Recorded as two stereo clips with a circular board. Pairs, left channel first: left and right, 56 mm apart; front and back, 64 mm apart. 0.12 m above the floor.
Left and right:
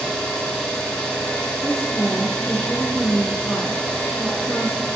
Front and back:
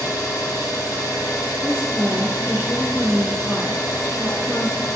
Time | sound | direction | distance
0.0 | an engine running | 10° left | 1.4 m
1.6 | a woman speaking | 90° left | 1.7 m